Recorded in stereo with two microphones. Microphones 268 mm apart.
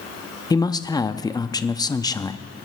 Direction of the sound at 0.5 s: 15° left (ahead or behind).